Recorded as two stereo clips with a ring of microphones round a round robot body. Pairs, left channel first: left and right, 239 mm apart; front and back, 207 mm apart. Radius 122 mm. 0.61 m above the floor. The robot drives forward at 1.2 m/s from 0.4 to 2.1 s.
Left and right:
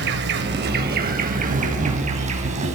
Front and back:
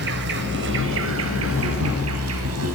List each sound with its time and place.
0.0 s an insect: 135° right, 3.5 m; by 2.8 s 155° right, 5 m